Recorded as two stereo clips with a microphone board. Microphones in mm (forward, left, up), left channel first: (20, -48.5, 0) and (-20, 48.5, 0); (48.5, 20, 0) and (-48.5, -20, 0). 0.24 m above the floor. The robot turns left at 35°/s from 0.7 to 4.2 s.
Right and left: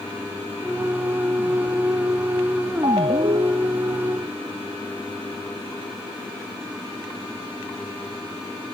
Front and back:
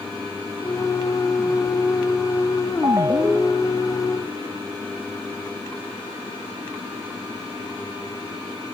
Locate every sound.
2.8 s a ringtone: 150° left; by 3.8 s 115° left